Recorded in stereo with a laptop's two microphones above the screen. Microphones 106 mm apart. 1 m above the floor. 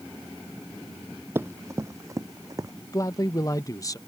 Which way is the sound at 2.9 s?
35° left (ahead or behind).